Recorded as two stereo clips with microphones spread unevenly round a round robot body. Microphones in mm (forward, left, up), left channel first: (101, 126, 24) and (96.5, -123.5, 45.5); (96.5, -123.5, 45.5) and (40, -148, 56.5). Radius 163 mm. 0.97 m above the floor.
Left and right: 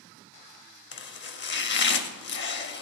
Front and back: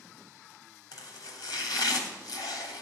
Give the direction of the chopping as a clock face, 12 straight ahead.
11 o'clock.